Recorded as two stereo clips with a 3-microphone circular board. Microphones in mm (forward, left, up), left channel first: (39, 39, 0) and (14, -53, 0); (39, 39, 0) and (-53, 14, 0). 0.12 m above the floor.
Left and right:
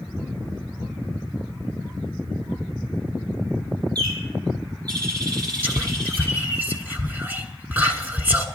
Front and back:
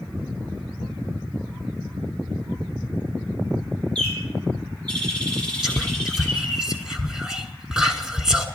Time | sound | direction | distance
4.0 | a bird | 65° right | 3.5 m
5.6 | whispering | 95° right | 1.2 m